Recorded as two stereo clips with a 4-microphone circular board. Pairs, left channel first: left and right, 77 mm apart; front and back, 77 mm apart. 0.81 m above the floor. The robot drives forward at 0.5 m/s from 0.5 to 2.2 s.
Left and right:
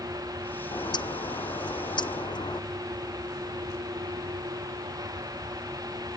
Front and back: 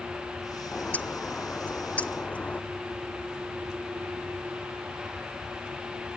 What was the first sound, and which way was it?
A bird, 70° left.